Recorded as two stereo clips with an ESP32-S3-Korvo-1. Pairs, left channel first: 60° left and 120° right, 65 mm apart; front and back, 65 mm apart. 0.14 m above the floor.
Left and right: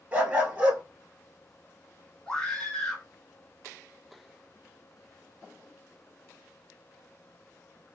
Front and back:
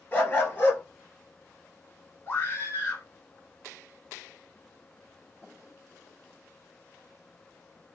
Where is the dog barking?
60° right, 1.1 m.